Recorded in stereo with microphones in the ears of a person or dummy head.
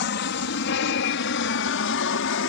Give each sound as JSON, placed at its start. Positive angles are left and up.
{"t": 0.0, "sound": "an aircraft", "side_deg": 55}